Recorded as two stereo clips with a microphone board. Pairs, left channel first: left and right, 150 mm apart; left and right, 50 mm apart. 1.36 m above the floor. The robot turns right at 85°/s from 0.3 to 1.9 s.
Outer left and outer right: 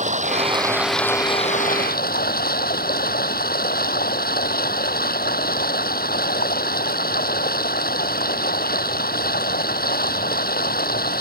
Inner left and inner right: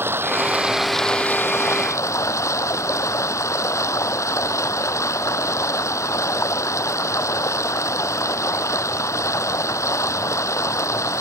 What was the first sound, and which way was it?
Running water, 50° right.